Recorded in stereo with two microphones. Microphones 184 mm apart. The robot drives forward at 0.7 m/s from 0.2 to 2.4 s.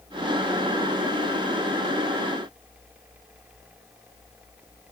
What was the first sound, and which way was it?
Only background noise.